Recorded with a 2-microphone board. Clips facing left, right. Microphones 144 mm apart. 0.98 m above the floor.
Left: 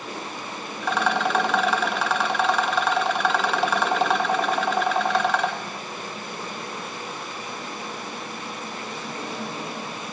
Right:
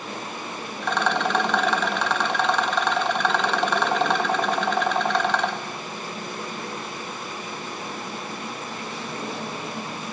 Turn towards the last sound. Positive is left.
turn(degrees=0)  # may be behind; listen again after turning